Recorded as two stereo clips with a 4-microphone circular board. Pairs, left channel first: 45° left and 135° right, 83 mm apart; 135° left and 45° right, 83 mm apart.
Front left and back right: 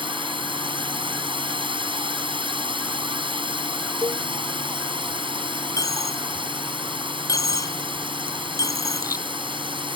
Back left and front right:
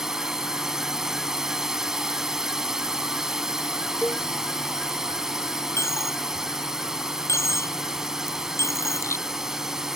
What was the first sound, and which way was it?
A drone, 130° right.